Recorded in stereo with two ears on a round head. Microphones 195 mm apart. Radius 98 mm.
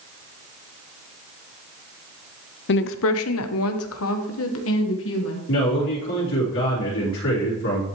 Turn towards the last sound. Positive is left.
turn(degrees=70)  # may be behind; listen again after turning